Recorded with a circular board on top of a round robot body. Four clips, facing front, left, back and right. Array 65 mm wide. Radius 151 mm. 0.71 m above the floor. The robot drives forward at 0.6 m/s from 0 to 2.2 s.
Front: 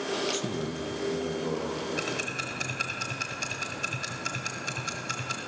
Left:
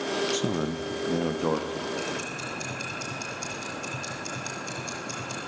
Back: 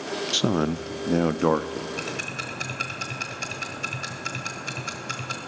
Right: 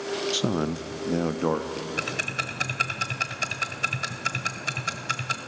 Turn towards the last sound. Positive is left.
turn(degrees=-100)